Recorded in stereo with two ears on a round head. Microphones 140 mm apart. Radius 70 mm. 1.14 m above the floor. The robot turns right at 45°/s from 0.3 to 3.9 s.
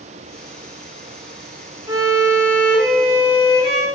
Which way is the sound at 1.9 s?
25° right.